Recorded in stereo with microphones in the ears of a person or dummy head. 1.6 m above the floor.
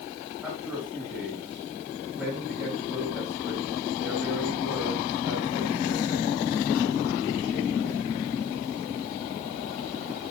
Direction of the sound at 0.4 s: 5° right (ahead or behind).